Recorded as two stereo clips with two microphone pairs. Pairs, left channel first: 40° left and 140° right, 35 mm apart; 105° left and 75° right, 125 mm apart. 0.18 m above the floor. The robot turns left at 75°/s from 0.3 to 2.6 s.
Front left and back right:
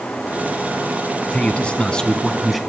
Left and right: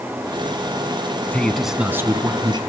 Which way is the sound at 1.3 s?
40° left.